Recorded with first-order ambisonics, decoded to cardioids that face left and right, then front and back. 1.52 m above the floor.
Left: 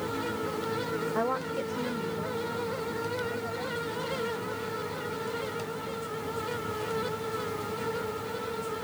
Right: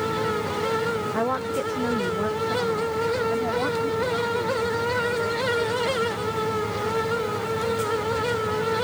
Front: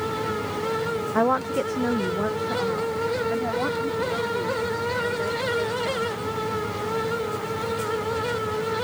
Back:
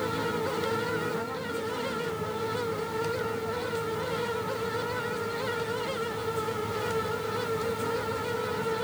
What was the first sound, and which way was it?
A woman speaking, 10° right.